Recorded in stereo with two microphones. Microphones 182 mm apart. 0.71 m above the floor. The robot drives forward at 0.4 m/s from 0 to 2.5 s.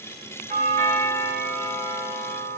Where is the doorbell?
55° right (ahead or behind), 4 m; by 2.6 s 65° right (ahead or behind), 3.5 m.